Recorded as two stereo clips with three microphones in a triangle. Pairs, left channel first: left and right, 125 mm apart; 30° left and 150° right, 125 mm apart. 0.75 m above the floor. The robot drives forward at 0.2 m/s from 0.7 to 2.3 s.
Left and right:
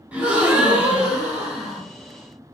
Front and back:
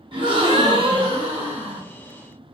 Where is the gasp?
165° right, 0.7 m; by 1.8 s 170° right, 0.9 m.